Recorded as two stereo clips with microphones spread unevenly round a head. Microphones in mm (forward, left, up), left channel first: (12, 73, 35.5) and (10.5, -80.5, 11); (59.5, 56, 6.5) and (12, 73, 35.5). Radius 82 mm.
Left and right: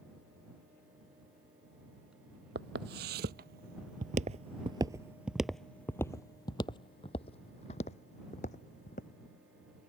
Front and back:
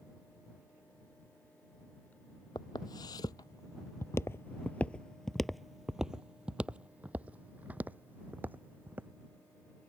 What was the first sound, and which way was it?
Footsteps, 70° right.